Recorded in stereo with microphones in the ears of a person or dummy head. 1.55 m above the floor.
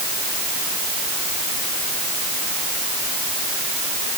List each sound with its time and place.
Only background noise.